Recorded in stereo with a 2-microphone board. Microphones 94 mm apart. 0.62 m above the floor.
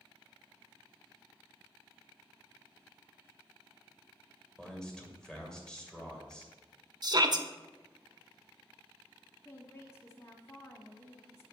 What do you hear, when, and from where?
4.6 s a man speaking: 5° left (ahead or behind), 2 m
7.0 s a shout: 45° right (ahead or behind), 0.9 m
9.4 s a woman speaking: 30° left (ahead or behind), 1.0 m